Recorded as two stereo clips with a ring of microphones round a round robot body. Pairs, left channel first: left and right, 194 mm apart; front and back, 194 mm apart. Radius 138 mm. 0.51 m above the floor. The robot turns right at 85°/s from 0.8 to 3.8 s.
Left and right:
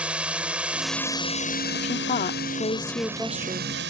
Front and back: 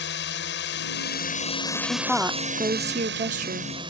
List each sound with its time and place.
0.0 s a drone: 5° right; by 3.9 s 110° right
1.7 s a woman speaking: 55° left; by 3.7 s 135° right